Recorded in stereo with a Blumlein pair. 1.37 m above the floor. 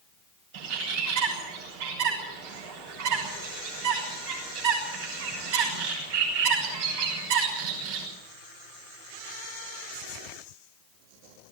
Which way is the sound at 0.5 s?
50° right.